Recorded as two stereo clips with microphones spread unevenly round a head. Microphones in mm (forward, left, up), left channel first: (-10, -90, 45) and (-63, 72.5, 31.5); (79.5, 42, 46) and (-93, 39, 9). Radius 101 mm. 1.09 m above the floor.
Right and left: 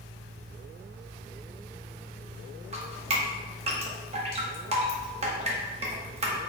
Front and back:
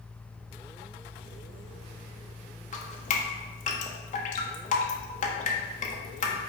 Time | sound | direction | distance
2.7 | dripping | 50° left | 1.2 m